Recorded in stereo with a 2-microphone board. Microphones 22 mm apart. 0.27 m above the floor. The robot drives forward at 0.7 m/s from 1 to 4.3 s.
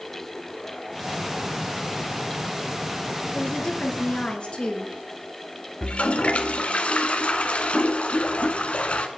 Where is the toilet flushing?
70° left (ahead or behind), 1.3 m.